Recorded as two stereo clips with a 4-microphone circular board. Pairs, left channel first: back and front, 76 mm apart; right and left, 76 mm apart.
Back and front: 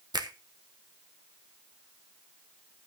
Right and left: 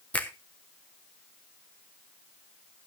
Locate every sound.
0.1 s a finger snap: 15° right, 1.1 m